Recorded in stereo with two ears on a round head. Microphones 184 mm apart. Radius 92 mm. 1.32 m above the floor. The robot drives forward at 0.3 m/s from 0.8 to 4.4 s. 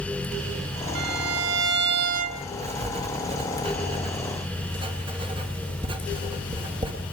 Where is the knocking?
I don't hear knocking.